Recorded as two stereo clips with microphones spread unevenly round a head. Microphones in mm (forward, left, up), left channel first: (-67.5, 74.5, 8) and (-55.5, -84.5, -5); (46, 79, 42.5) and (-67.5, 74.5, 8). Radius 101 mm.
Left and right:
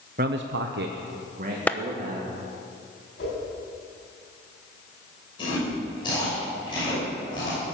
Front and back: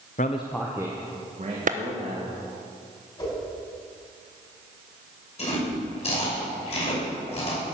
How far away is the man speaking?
About 0.7 m.